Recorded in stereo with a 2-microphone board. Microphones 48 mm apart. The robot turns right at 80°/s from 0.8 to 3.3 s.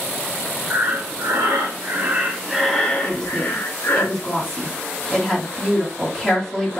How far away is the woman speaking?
About 1.5 m.